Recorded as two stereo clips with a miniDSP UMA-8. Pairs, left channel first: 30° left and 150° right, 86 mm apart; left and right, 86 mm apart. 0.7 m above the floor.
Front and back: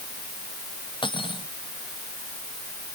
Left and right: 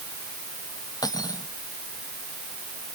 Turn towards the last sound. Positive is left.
turn(degrees=45)